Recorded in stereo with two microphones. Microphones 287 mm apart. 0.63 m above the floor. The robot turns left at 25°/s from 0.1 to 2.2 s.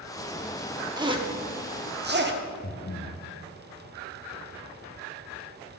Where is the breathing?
35° left (ahead or behind), 0.5 m.